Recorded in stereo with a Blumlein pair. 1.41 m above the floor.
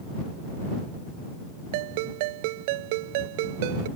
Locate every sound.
1.7 s a ringtone: 50° right